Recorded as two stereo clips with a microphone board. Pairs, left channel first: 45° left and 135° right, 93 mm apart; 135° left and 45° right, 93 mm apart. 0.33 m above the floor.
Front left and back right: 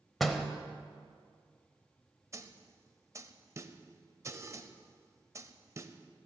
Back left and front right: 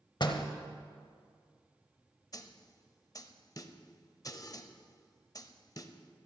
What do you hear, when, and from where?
0.2 s a door slam: 135° left, 0.8 m
2.3 s a snare drum: 175° left, 0.5 m